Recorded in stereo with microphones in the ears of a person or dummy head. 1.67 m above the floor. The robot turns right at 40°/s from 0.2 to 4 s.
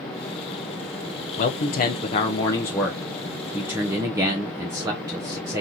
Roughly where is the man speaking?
Left.